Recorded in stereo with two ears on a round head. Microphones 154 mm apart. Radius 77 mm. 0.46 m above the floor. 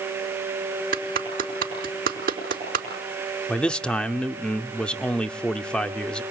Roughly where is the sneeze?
No sneeze in this recording.